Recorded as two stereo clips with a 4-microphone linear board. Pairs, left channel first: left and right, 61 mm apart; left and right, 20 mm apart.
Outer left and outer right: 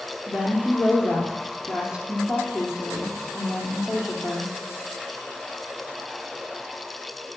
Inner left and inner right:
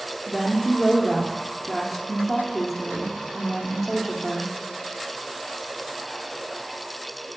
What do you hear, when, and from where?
0.3 s a woman speaking: 10° right (ahead or behind), 3.5 m